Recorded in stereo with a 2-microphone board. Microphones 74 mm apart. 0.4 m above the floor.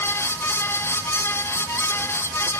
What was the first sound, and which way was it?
Only background noise.